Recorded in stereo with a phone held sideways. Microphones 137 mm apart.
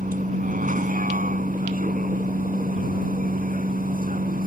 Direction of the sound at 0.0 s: 80° right.